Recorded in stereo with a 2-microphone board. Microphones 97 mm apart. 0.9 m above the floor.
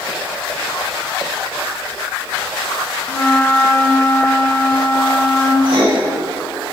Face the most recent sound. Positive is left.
turn(degrees=-65)  # may be behind; listen again after turning